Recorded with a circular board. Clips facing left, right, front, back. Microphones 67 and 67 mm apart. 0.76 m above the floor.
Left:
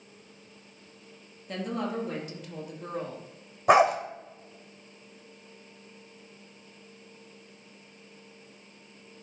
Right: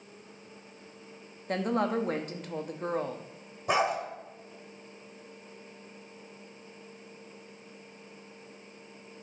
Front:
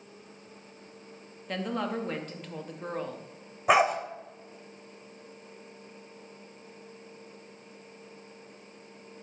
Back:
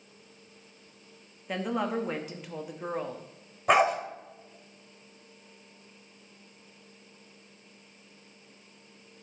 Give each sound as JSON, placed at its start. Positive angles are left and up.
{"t": 1.5, "sound": "a woman speaking", "azimuth_deg": -100, "distance_m": 0.8}
{"t": 3.7, "sound": "a dog barking", "azimuth_deg": 85, "distance_m": 0.9}